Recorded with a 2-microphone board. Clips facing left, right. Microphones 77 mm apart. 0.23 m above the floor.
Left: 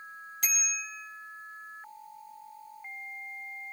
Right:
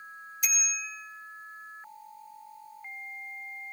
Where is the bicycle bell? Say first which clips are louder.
Right 1 dB; 65° left (ahead or behind), 5 m.